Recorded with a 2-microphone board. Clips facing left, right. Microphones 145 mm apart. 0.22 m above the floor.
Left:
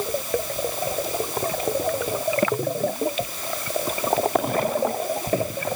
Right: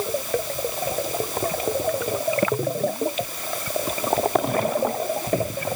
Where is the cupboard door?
I don't hear a cupboard door.